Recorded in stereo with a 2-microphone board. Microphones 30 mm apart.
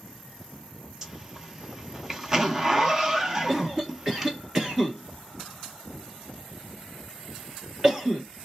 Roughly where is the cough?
Centre.